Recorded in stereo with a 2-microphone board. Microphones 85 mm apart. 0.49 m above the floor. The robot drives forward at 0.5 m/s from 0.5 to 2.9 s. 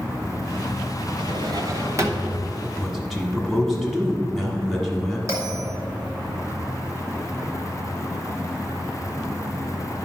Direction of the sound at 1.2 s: 60° right (ahead or behind).